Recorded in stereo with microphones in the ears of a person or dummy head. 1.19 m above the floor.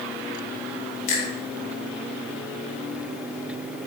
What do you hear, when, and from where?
1.1 s a finger snap: 45° left (ahead or behind), 2.5 m